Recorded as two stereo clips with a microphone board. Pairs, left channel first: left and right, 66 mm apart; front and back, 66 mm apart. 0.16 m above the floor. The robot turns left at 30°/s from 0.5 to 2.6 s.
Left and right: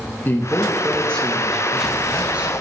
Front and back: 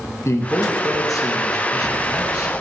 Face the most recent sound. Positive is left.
turn(degrees=-30)